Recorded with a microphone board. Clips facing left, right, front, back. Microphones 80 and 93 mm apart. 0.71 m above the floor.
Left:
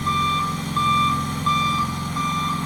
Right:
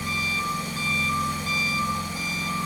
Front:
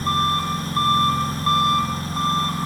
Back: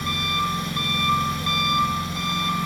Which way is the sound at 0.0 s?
55° left.